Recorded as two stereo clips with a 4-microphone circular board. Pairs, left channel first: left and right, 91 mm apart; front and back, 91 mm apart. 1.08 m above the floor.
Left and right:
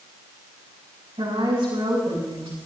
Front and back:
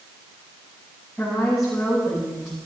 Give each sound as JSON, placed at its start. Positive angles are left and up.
{"t": 1.2, "sound": "a woman speaking", "azimuth_deg": -85, "distance_m": 9.0}